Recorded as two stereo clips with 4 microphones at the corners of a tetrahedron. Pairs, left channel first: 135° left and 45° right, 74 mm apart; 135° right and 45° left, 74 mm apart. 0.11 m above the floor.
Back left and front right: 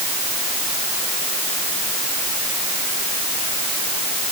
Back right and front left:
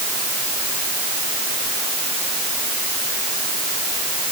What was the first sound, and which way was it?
Only background noise.